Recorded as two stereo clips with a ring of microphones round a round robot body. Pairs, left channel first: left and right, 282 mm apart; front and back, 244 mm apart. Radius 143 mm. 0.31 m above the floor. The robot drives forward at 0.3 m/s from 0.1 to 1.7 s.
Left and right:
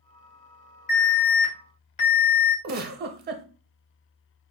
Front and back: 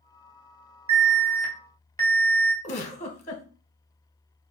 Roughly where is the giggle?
Ahead right.